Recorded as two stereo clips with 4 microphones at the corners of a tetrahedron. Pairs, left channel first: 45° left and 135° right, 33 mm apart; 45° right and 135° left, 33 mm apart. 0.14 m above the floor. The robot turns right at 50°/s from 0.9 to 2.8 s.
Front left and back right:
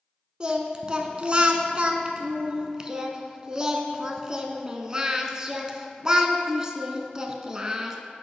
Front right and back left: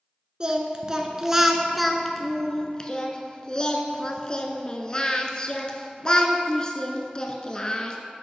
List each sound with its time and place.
0.4 s singing: straight behind, 0.5 m; by 8.0 s 85° right, 0.5 m